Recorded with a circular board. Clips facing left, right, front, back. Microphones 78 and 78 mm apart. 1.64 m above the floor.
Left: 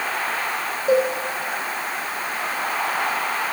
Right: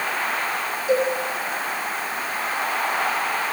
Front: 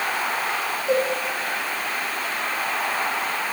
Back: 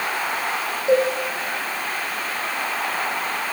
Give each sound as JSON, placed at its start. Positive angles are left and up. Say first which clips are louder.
{"t": 0.9, "sound": "a cowbell", "louder": "left 3 dB, back 4 dB", "azimuth_deg": 115, "distance_m": 1.7}